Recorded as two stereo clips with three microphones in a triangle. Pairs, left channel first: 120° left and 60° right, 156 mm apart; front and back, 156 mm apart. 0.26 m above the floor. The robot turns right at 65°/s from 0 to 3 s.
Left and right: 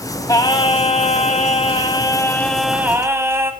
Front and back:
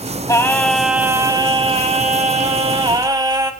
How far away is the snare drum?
I don't hear a snare drum.